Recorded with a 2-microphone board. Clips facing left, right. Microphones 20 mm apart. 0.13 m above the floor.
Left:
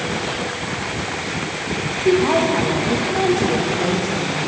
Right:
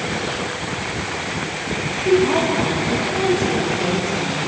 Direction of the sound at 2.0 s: 70° left (ahead or behind).